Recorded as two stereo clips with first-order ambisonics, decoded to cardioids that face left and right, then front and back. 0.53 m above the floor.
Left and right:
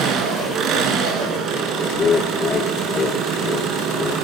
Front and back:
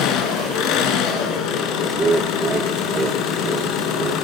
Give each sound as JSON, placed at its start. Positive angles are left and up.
{"t": 0.0, "sound": "an engine running", "azimuth_deg": -40, "distance_m": 3.5}
{"t": 1.9, "sound": "laughter", "azimuth_deg": 130, "distance_m": 0.9}